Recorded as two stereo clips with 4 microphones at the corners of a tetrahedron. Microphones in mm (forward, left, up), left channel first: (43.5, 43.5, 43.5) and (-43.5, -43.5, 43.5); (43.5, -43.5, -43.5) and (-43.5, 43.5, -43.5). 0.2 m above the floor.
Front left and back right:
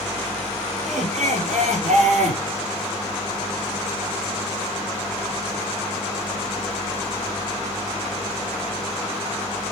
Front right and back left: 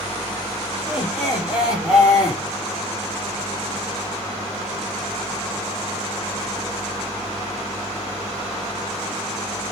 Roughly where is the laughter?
Behind right.